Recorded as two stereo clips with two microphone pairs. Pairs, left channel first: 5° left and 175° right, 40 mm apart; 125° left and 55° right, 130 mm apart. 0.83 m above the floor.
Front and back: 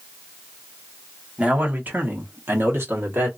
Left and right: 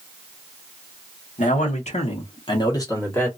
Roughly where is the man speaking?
Behind left.